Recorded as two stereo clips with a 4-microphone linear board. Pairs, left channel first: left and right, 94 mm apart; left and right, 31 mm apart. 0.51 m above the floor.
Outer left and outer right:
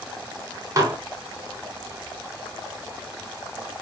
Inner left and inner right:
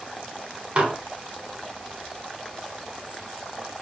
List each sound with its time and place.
0.8 s dishes clattering: 35° right (ahead or behind), 0.8 m